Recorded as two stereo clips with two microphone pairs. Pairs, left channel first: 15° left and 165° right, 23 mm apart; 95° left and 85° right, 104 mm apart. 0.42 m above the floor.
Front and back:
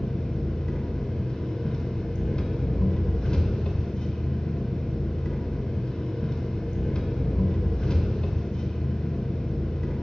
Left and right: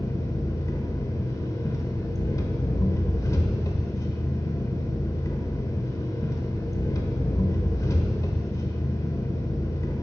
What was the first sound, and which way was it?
An engine running, 50° left.